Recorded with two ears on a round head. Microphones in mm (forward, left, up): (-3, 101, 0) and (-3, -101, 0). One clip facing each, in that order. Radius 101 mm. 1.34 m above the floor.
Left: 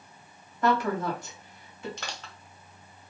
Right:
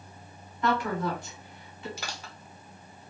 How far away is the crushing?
About 0.8 m.